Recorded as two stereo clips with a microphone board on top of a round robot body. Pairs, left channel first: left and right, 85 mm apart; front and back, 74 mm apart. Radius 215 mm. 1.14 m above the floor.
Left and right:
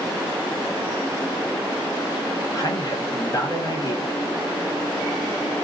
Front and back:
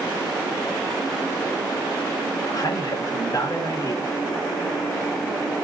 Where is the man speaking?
40° left, 1.7 m.